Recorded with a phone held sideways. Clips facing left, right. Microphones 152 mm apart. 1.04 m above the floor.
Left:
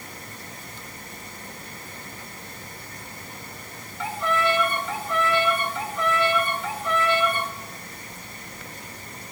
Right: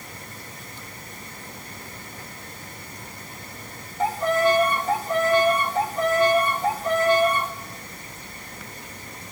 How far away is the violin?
About 0.6 m.